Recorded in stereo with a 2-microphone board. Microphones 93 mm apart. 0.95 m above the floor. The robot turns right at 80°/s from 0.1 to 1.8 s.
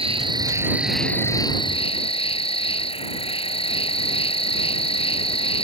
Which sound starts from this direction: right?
An insect, at 0.0 s.